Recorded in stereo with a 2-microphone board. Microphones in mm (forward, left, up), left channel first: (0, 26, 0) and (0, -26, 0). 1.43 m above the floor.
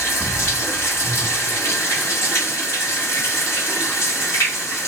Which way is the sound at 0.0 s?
60° left (ahead or behind).